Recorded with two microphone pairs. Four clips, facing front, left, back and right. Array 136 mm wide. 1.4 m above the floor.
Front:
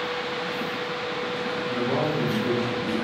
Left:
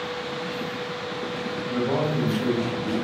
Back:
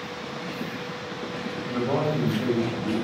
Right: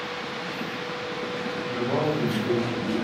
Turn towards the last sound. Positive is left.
turn(degrees=150)